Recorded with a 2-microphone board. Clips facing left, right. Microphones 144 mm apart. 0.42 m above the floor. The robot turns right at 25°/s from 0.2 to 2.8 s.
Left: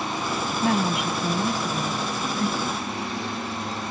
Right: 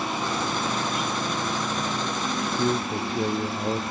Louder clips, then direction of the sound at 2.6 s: Right 4 dB; 45° right (ahead or behind).